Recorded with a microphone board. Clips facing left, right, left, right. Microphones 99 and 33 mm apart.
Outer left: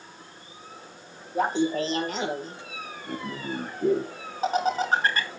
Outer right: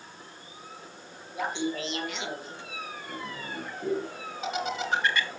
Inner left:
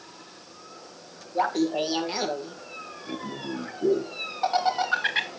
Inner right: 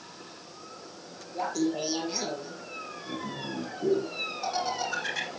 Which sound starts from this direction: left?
Laughter, at 1.4 s.